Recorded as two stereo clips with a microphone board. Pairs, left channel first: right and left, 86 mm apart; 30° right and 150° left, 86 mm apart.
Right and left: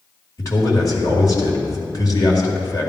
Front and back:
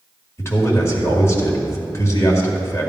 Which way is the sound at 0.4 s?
75° right.